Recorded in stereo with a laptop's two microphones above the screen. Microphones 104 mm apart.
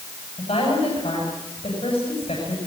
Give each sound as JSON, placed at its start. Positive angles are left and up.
{"t": 0.4, "sound": "a woman speaking", "side_deg": 60, "distance_m": 8.5}